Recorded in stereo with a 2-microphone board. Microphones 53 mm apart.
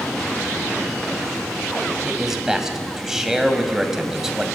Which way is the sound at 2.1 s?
10° right (ahead or behind).